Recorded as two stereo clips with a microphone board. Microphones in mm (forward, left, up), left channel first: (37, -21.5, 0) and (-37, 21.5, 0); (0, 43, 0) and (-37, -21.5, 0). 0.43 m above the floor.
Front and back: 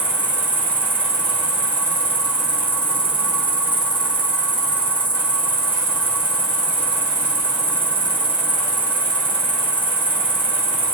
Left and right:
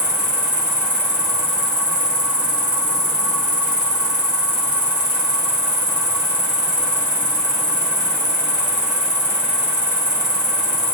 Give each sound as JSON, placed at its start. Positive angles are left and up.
{"t": 0.0, "sound": "an insect", "azimuth_deg": -45, "distance_m": 1.8}